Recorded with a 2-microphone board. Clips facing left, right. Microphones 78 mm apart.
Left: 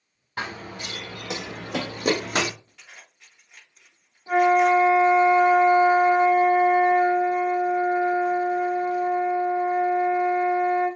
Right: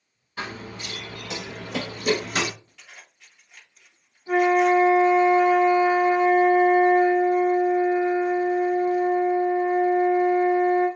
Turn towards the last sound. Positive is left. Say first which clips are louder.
# left 1 dB
turn(degrees=25)  # may be behind; listen again after turning